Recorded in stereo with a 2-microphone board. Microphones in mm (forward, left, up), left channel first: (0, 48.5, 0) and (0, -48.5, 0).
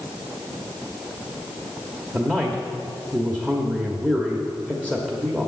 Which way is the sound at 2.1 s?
15° right (ahead or behind).